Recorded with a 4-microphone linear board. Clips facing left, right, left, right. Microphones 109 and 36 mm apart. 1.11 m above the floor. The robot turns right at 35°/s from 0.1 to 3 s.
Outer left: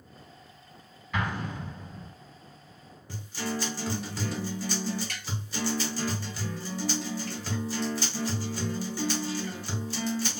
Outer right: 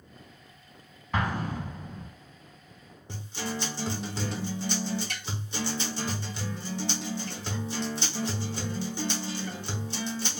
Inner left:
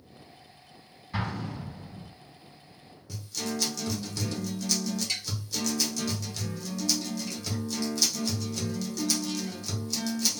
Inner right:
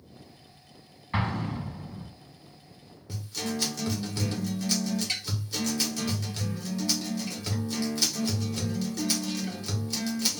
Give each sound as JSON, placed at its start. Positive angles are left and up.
{"t": 1.1, "sound": "an explosion", "side_deg": -35, "distance_m": 0.7}
{"t": 3.1, "sound": "a guitar", "side_deg": -20, "distance_m": 0.9}